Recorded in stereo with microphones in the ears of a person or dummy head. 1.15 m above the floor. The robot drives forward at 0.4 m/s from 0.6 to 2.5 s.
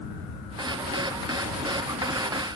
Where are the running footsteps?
I don't hear running footsteps.